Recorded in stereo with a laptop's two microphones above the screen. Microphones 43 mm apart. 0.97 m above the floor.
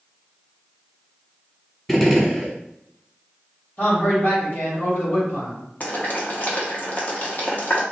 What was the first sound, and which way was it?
A gunshot, 5° left (ahead or behind).